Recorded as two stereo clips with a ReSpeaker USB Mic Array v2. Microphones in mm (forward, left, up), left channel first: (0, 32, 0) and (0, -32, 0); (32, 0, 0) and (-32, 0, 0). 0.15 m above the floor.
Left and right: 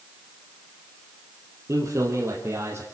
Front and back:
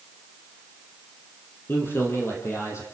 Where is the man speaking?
50° right, 5.5 m; by 2.9 s 40° right, 6 m.